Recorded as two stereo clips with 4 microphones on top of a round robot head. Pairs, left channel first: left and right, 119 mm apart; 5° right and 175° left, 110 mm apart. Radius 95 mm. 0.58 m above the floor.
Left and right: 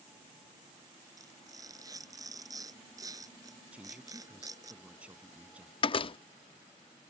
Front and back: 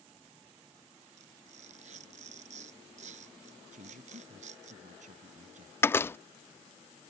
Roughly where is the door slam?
Ahead left.